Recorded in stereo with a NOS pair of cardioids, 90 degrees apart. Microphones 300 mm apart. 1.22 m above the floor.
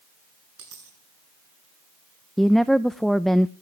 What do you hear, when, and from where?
0.6 s a dropped coin: 65° right, 7.5 m
2.4 s a woman speaking: straight ahead, 0.6 m